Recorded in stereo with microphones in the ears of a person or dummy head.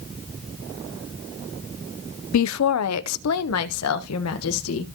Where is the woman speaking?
70° left (ahead or behind), 0.6 m; by 4.8 s 85° left, 1.9 m.